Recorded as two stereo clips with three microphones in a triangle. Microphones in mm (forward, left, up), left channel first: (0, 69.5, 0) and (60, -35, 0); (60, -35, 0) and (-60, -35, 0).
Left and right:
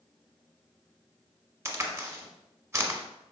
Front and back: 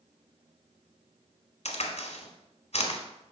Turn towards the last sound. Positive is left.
turn(degrees=5)